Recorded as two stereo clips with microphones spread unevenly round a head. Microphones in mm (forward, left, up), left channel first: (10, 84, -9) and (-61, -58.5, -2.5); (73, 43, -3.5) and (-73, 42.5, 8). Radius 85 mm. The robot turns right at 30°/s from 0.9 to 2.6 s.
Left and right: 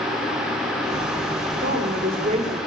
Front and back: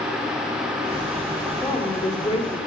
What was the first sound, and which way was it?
A woman speaking, 85° right.